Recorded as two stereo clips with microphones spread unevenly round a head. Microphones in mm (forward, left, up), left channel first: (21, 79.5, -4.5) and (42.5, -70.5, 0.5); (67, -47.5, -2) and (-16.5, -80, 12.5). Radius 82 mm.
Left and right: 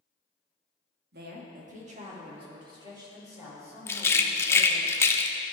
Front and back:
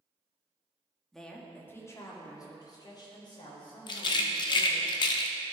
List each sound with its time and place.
1.1 s a woman speaking: 65° right, 1.5 m; by 4.9 s 5° right, 5 m
3.9 s a rattle: 30° left, 0.6 m